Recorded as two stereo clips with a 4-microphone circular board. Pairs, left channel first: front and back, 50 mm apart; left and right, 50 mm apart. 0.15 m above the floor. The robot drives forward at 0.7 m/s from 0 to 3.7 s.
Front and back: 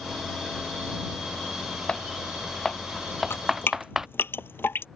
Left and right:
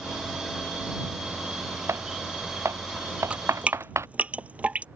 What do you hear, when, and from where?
1.9 s typing on a keyboard: 70° right; by 4.1 s 100° right
3.3 s dripping: 30° right; by 4.8 s 35° right